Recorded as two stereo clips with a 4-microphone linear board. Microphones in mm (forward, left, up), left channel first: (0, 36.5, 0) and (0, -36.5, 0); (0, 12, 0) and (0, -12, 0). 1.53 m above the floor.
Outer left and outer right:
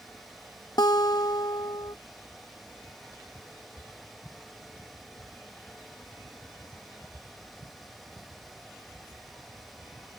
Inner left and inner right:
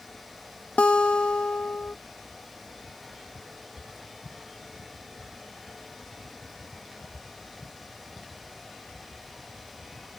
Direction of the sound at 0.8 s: 70° left (ahead or behind).